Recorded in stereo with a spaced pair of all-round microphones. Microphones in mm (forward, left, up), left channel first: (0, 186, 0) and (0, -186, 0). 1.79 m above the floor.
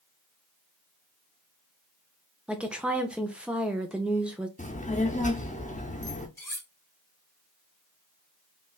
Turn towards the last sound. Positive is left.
turn(degrees=5)  # may be behind; listen again after turning